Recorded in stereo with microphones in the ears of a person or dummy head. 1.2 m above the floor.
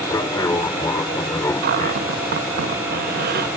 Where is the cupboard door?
50° right (ahead or behind).